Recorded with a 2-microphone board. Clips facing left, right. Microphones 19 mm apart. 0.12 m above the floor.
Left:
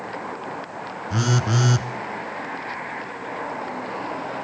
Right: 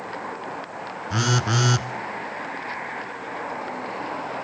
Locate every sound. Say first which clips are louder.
1.1 s a phone buzzing: even; 15° right (ahead or behind), 1.0 m